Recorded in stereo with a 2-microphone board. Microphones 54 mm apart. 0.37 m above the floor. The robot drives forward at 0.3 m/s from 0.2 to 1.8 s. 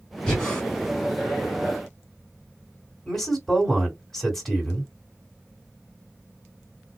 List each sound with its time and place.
0.3 s breathing: 10° left (ahead or behind), 1.6 m
3.1 s a man speaking: 5° left (ahead or behind), 1.7 m